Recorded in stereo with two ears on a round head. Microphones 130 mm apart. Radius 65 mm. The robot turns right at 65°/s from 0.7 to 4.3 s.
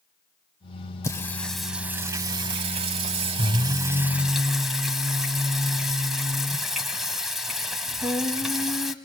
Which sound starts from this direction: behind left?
Singing, at 1.0 s.